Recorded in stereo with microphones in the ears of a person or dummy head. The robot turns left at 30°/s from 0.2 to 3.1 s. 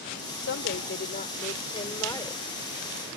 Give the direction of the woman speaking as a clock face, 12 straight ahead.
10 o'clock.